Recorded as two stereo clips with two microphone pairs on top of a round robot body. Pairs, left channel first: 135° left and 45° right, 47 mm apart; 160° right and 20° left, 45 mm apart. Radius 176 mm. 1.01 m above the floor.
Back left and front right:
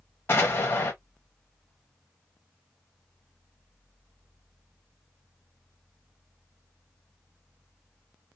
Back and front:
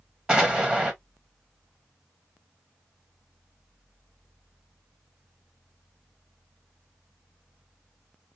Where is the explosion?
90° left, 0.8 m.